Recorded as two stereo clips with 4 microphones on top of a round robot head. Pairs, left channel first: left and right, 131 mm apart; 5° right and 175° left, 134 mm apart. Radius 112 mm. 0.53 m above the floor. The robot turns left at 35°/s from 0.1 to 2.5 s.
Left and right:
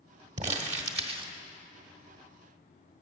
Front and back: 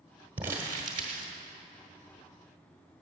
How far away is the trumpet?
No trumpet in this recording.